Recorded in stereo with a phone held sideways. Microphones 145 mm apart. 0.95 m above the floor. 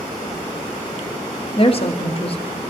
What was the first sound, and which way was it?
A woman speaking, 40° left (ahead or behind).